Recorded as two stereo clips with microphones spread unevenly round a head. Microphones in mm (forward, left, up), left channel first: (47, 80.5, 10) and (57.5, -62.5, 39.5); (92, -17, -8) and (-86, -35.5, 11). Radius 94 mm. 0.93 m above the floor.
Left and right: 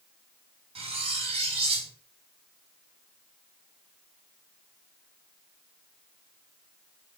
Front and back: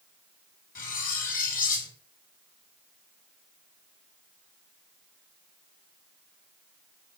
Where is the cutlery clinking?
35° right, 5 m.